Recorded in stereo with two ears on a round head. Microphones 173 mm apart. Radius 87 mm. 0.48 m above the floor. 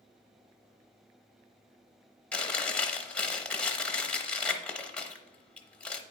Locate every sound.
2.3 s chewing: 5° left (ahead or behind), 0.6 m